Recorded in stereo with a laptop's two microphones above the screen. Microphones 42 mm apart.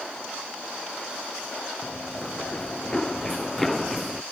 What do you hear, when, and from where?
1.8 s running footsteps: 30° left (ahead or behind); by 4.2 s centre (ahead or behind)